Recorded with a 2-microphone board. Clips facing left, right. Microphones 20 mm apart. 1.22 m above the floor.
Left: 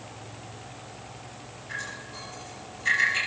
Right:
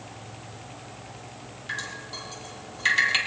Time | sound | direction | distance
1.7 | dripping | 70° right (ahead or behind) | 5.5 m